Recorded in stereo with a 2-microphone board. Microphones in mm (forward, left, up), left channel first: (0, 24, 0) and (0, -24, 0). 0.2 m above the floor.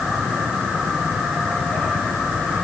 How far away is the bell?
I don't hear a bell.